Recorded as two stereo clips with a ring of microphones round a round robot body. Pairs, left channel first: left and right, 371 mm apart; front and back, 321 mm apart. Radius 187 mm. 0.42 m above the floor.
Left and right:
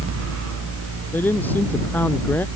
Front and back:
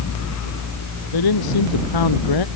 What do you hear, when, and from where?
1.1 s a man speaking: 5° left